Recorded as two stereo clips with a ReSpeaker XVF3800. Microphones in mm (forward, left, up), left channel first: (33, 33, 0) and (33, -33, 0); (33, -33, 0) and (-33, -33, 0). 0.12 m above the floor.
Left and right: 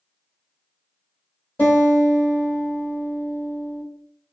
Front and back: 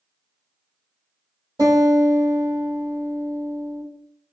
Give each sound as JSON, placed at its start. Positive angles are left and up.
{"t": 1.6, "sound": "a guitar", "azimuth_deg": 155, "distance_m": 1.7}